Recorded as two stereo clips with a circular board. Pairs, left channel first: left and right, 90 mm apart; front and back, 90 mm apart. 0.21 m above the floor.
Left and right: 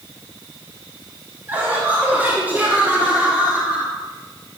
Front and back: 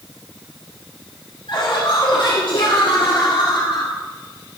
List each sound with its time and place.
1.5 s laughter: 20° right, 8 m; by 3.9 s 15° right, 6.5 m